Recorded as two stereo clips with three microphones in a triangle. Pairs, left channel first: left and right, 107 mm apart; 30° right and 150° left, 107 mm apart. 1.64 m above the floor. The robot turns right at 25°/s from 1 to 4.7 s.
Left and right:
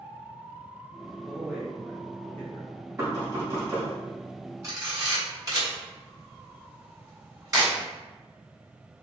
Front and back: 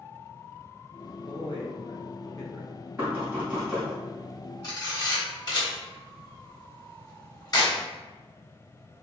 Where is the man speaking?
5° right, 0.9 m; by 2.7 s 30° left, 0.9 m.